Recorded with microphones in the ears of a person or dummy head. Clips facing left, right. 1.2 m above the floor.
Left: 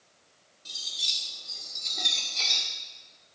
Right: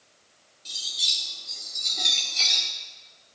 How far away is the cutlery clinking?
About 2 m.